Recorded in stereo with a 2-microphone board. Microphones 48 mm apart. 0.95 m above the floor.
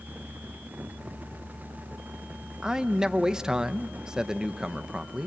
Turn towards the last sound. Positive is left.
turn(degrees=-15)  # may be behind; listen again after turning